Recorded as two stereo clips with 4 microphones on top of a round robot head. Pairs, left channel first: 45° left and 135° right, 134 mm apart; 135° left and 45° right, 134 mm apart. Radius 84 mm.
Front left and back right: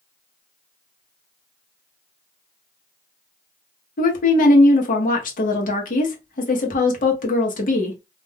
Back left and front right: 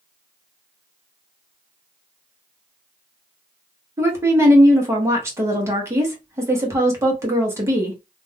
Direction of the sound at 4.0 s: 30° left.